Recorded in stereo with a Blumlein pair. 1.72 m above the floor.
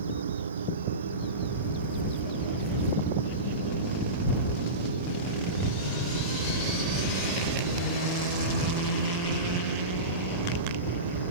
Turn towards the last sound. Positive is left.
turn(degrees=-65)